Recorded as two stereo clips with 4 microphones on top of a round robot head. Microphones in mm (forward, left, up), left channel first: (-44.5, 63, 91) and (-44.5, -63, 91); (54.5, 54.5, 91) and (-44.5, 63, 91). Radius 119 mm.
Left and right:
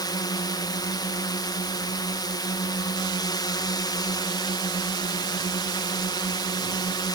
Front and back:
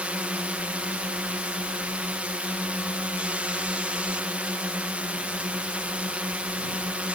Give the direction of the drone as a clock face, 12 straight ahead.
8 o'clock.